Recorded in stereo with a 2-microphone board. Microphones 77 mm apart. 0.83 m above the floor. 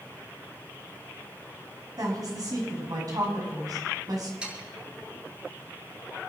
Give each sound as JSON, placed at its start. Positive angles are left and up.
{"t": 2.0, "sound": "a woman speaking", "side_deg": -50, "distance_m": 6.0}
{"t": 4.4, "sound": "sawing", "side_deg": -15, "distance_m": 6.5}